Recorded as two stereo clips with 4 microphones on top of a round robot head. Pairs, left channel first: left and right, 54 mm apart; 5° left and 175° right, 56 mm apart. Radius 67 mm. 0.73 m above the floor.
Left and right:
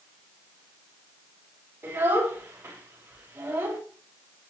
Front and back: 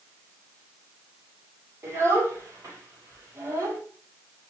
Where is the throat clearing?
No throat clearing in this recording.